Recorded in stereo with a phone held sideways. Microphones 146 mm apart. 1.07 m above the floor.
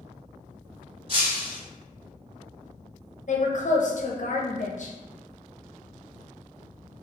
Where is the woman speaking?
55° left (ahead or behind), 0.7 m.